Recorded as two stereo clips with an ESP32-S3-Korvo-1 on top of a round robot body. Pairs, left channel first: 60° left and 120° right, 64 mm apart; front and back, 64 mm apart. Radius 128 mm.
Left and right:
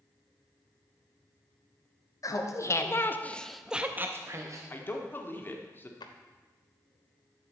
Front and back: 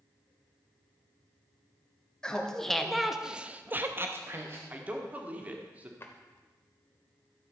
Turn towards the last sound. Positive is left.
turn(degrees=55)